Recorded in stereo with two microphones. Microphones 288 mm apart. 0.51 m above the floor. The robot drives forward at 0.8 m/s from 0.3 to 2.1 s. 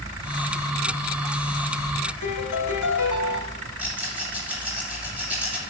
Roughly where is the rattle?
Centre.